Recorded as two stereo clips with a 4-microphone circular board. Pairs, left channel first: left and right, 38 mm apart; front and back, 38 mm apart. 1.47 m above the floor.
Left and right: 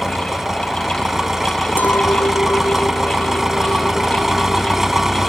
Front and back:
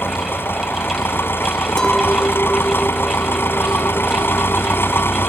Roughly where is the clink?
Left.